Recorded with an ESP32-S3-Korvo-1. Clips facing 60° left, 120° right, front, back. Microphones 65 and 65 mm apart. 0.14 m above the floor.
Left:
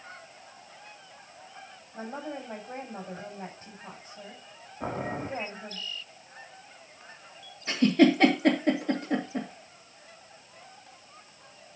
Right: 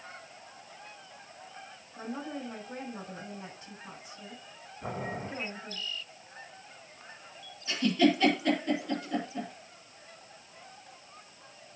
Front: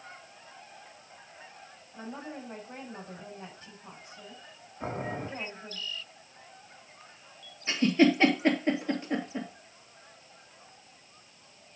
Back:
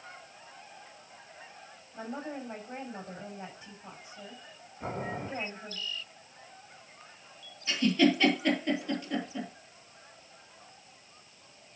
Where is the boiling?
60° left, 6 m.